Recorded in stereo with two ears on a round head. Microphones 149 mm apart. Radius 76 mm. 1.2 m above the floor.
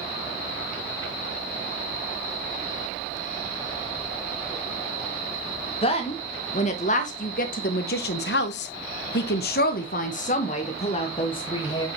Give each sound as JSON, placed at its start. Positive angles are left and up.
{"t": 5.8, "sound": "a woman speaking", "side_deg": 35, "distance_m": 1.9}